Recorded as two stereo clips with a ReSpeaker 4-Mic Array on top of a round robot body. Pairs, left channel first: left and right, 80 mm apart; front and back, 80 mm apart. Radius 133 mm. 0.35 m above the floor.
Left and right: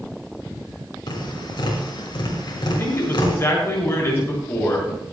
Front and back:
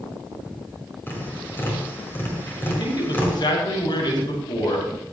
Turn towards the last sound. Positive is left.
turn(degrees=30)